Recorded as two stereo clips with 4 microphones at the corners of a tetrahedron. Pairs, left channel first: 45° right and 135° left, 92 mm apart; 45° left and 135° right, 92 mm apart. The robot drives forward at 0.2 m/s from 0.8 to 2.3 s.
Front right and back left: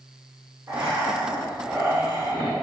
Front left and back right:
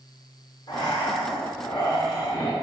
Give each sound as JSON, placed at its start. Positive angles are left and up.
{"t": 0.7, "sound": "breathing", "azimuth_deg": 80, "distance_m": 1.5}